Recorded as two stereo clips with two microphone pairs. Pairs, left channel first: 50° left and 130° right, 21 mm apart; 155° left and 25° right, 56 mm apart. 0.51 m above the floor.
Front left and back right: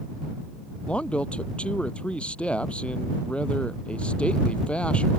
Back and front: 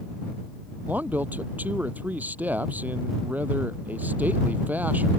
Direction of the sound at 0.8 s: 35° left.